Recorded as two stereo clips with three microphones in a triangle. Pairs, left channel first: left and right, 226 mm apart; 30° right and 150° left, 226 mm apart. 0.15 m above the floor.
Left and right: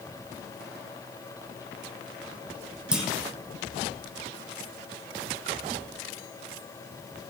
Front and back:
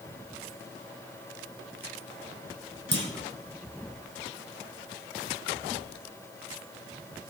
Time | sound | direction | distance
2.9 | a clunk | 175° right | 2.5 m